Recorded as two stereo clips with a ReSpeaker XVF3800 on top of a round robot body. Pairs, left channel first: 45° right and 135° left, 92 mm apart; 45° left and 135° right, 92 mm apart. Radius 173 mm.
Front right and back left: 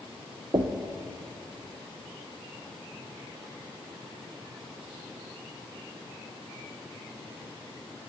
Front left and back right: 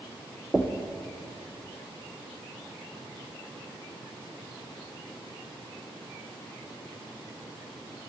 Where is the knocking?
150° left, 0.9 m.